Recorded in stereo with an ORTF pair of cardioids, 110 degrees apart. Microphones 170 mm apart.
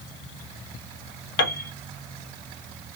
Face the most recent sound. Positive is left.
turn(degrees=65)